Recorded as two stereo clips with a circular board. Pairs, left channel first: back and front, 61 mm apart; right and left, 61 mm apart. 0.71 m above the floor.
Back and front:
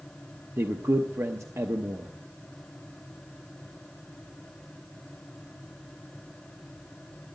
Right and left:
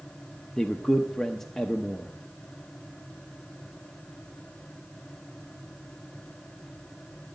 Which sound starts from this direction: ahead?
A man speaking, at 0.6 s.